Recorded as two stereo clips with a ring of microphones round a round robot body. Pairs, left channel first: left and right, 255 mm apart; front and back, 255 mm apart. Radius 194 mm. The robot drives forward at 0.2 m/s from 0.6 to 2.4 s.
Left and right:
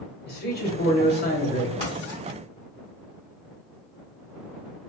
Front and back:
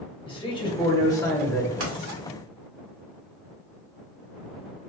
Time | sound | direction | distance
0.3 | a man speaking | 65° left | 1.3 m
1.8 | writing | 160° left | 1.4 m